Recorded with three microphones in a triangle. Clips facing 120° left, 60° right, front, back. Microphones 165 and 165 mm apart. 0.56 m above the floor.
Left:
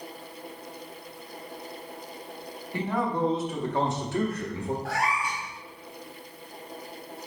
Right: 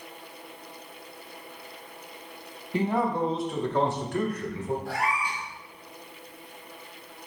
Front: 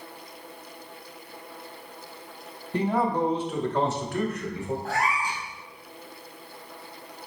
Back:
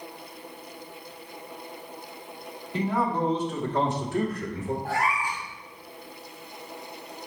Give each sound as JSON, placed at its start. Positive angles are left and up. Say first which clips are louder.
{"t": 2.7, "sound": "a man speaking", "louder": "right 2 dB, front 2 dB", "azimuth_deg": 0, "distance_m": 1.0}
{"t": 4.8, "sound": "a cat meowing", "louder": "left 1 dB, even", "azimuth_deg": 105, "distance_m": 1.6}